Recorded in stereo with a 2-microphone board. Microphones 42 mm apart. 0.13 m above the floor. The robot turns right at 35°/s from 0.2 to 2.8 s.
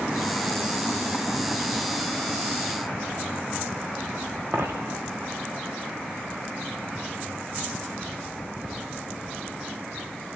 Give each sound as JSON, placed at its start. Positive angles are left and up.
{"t": 4.5, "sound": "a dropped coin", "side_deg": -55, "distance_m": 3.0}